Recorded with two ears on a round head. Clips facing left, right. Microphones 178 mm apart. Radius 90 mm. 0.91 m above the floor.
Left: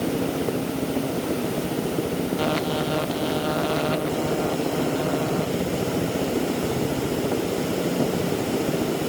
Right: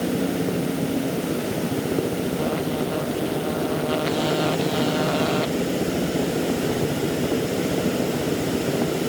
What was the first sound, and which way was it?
Only background noise.